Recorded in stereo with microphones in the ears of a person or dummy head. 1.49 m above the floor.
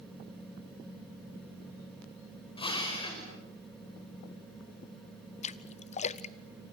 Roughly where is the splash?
Left.